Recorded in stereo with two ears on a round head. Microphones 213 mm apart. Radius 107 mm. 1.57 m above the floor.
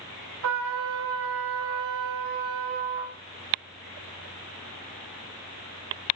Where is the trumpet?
60° right (ahead or behind), 0.5 m.